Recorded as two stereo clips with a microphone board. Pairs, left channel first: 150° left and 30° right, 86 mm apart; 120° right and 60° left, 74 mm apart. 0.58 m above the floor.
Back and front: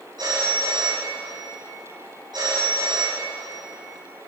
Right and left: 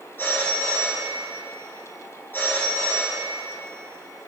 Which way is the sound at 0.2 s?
60° right.